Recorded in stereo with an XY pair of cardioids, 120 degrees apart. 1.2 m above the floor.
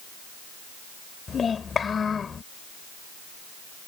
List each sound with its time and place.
1.3 s a child speaking: 35° left